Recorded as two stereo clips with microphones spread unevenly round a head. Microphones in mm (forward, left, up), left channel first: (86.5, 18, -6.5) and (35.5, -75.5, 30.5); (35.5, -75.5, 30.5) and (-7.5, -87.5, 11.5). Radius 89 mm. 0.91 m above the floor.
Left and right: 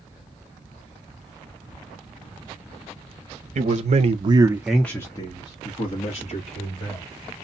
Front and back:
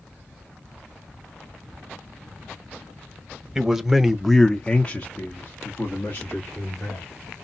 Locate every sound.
3.5 s a man speaking: 105° right, 0.9 m; by 7.0 s 90° left, 2 m